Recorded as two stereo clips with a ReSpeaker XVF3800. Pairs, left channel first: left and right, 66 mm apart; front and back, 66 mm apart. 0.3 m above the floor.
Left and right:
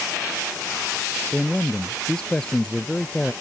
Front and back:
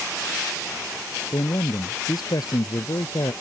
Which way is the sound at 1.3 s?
15° left.